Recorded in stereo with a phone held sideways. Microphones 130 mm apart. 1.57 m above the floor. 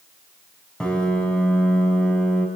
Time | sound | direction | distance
0.8 | a piano | 5° left (ahead or behind) | 5 m